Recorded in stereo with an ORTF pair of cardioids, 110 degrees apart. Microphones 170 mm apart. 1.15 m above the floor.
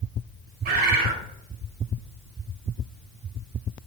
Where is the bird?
65° right, 1.1 m.